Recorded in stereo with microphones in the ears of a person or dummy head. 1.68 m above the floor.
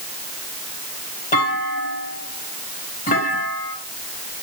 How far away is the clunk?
About 3 m.